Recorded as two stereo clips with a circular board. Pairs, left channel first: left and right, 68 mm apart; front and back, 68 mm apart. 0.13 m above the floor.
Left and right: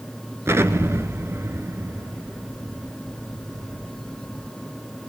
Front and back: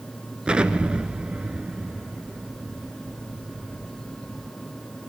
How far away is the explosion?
About 1.0 m.